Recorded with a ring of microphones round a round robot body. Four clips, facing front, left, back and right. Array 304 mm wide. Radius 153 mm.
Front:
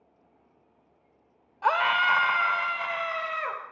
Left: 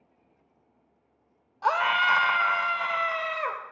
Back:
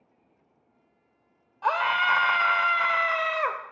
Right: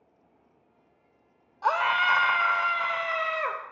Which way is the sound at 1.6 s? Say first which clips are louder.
Even, front 1 dB; 25° left.